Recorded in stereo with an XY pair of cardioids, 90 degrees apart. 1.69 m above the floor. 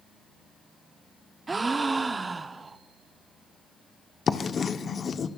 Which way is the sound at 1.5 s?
30° right.